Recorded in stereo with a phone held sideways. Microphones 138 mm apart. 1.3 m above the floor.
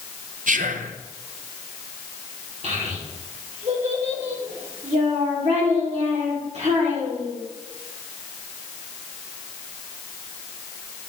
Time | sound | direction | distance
0.5 | whispering | 75° right (ahead or behind) | 0.7 m
2.6 | a child speaking | 55° right (ahead or behind) | 2.5 m